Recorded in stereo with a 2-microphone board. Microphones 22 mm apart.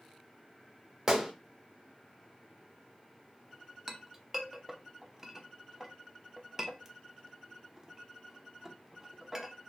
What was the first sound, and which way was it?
A gunshot, 35° right (ahead or behind).